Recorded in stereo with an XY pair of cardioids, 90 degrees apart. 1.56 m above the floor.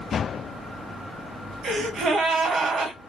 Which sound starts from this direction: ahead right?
A gasp, at 1.6 s.